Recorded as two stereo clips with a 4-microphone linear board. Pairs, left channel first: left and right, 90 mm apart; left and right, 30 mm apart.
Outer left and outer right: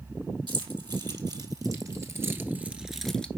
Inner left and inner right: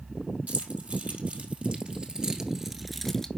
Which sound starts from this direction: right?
Keys jangling, at 0.5 s.